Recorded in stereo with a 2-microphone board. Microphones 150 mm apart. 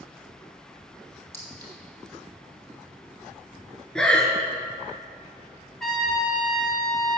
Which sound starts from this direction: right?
A clink, at 1.3 s.